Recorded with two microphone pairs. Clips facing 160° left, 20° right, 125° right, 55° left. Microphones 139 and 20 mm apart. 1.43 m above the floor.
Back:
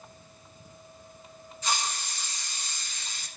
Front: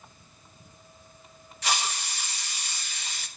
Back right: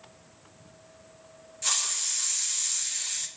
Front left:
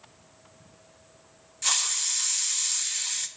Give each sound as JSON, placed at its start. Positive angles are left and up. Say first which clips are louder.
{"t": 1.6, "sound": "a hiss", "louder": "front 1 dB, front left 2 dB", "azimuth_deg": -25, "distance_m": 1.1}